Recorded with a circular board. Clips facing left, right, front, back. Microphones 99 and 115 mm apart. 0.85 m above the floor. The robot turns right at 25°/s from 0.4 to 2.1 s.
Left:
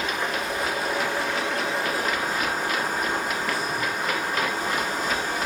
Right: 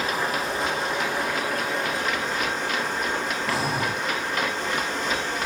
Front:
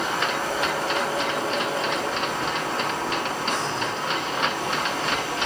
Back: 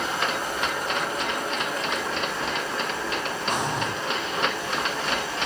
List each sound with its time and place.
0.0 s running water: 35° right, 6 m; by 5.5 s 10° left, 6 m
3.5 s breathing: 105° right, 1.5 m